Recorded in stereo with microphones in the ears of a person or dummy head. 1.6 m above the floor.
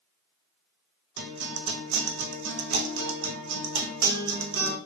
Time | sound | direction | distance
1.2 | a guitar | 70° right (ahead or behind) | 0.7 m